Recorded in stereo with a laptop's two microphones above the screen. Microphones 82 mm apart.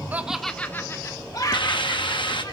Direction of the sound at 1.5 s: 75° left (ahead or behind).